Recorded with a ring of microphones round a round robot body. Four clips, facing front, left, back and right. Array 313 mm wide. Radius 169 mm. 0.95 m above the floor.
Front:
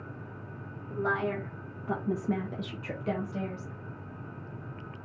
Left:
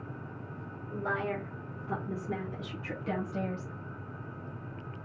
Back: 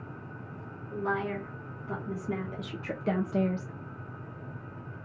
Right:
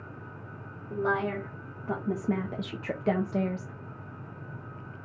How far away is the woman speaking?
About 2.5 m.